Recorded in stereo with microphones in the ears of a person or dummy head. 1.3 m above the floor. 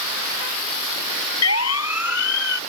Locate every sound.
1.4 s a siren: 80° left